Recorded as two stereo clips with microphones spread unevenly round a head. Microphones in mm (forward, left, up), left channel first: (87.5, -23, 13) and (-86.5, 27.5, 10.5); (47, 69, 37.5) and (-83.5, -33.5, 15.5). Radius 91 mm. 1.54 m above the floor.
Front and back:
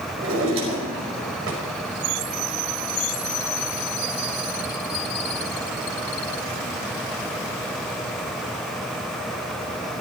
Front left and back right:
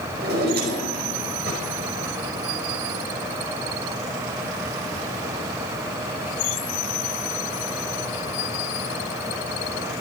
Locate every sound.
0.2 s a drawer: 175° right, 5 m